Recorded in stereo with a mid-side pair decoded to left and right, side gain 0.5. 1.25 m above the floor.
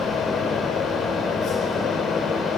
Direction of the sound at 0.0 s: 60° left.